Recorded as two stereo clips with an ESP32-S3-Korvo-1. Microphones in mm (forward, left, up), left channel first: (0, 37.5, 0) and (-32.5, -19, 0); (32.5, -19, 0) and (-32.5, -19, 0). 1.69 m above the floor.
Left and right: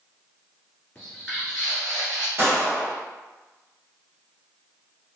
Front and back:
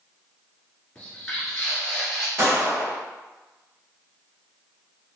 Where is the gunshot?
170° right, 1.7 m.